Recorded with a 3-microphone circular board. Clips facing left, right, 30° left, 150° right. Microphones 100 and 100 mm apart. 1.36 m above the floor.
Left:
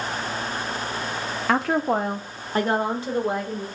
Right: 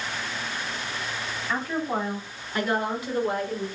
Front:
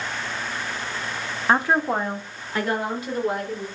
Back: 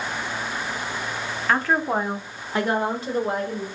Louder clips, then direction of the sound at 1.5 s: Left 7 dB, front 1 dB; 95° left.